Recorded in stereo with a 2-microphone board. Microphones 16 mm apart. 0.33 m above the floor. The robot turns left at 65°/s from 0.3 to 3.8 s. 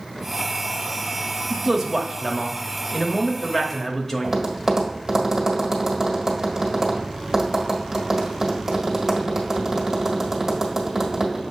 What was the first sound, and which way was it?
A man speaking, 25° right (ahead or behind).